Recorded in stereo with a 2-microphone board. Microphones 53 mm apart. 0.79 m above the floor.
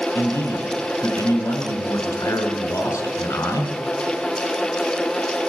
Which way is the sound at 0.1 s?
80° left.